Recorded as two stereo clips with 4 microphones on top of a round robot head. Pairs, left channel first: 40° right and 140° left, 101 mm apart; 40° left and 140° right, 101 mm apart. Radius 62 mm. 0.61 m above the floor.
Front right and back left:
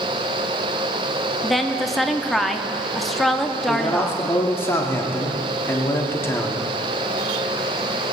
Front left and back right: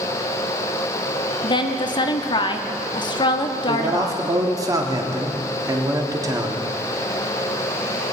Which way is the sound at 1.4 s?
50° left.